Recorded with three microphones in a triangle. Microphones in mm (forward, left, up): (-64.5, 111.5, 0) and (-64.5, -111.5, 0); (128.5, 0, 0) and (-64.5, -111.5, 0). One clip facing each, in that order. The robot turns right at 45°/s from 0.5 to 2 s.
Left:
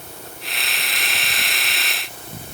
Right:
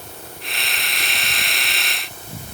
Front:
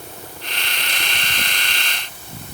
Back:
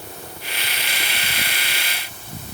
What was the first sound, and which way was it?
Only background noise.